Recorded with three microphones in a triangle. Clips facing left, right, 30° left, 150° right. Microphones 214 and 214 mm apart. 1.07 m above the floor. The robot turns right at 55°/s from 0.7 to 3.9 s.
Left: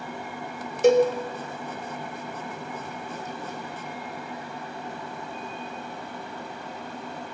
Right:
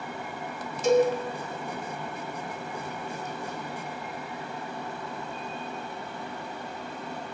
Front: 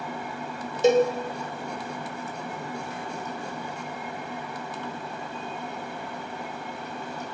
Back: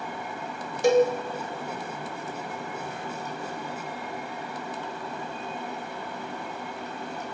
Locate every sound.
0.8 s a cowbell: 95° left, 0.5 m; by 1.1 s 105° left, 0.5 m